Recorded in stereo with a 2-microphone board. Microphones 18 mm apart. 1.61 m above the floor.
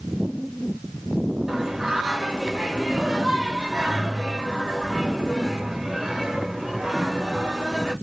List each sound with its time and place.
1.5 s singing: 25° right (ahead or behind), 1.6 m